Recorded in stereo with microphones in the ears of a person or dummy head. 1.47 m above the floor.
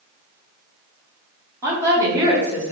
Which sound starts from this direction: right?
A woman speaking, at 1.6 s.